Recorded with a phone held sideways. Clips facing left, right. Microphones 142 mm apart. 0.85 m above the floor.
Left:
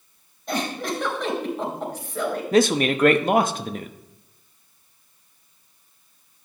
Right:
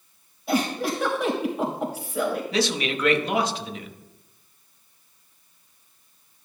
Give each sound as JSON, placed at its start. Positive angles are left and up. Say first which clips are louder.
{"t": 0.5, "sound": "a giggle", "louder": "right 3 dB", "side_deg": -5, "distance_m": 3.0}
{"t": 2.5, "sound": "a man speaking", "louder": "left 7 dB", "side_deg": 50, "distance_m": 0.9}